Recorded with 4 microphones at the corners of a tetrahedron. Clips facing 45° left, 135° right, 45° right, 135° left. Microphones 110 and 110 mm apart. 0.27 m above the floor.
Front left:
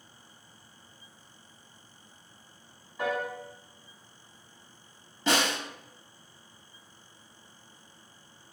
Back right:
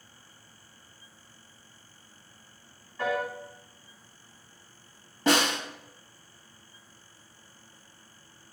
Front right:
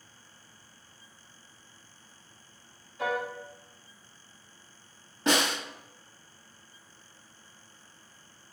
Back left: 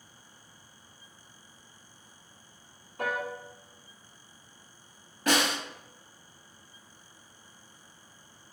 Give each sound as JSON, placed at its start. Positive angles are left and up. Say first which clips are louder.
{"t": 3.0, "sound": "a piano", "louder": "back right 1 dB, front right 1 dB", "azimuth_deg": 125, "distance_m": 1.1}
{"t": 5.3, "sound": "a snare drum", "louder": "back right 3 dB, even", "azimuth_deg": -105, "distance_m": 1.5}